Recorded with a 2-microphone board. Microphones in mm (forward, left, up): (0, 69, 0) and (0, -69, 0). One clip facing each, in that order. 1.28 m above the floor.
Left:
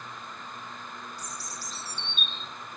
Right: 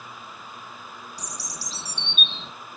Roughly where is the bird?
Right.